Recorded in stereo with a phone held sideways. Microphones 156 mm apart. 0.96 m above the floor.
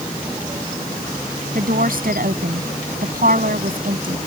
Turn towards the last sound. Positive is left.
turn(degrees=-70)  # may be behind; listen again after turning